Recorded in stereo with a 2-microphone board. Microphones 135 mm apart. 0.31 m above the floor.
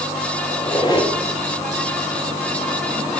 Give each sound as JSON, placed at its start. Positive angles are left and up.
{"t": 0.5, "sound": "a squeak", "side_deg": 30, "distance_m": 1.0}